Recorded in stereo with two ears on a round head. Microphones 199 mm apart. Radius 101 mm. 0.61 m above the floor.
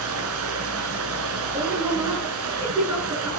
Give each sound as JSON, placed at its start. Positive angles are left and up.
{"t": 0.0, "sound": "running water", "side_deg": -70, "distance_m": 4.0}
{"t": 1.5, "sound": "a woman speaking", "side_deg": -10, "distance_m": 9.0}